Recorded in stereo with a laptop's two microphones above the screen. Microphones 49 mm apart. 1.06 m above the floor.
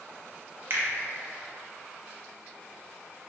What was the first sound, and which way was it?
A finger snap, 50° right (ahead or behind).